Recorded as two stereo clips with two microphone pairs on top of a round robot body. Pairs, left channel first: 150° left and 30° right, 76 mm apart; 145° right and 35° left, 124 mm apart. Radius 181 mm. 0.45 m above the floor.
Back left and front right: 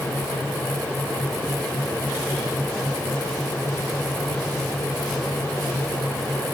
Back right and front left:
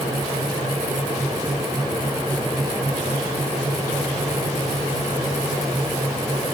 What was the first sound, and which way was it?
Only background noise.